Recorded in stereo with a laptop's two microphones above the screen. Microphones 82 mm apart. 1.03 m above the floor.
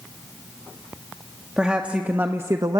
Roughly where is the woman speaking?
Centre.